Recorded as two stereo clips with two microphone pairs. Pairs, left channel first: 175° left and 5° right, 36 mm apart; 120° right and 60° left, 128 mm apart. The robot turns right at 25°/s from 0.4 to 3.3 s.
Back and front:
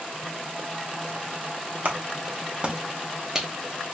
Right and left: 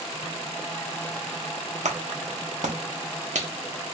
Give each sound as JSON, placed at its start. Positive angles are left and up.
{"t": 1.9, "sound": "a clap", "azimuth_deg": 35, "distance_m": 0.9}